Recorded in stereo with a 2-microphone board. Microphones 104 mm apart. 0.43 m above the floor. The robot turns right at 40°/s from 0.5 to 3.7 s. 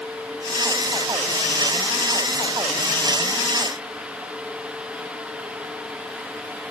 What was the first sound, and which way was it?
Only background noise.